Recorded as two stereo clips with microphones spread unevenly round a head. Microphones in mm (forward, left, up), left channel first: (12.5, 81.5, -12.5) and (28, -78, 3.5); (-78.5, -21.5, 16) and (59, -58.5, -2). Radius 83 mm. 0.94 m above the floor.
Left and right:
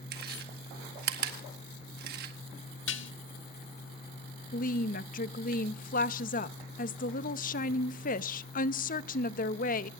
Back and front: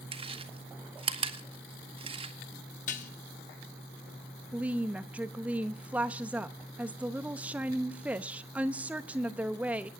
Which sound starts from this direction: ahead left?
A woman speaking, at 4.5 s.